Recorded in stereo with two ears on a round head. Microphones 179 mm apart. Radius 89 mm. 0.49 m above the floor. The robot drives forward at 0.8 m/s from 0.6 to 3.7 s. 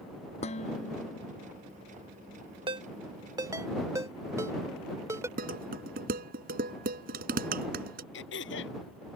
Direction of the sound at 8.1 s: 70° left (ahead or behind).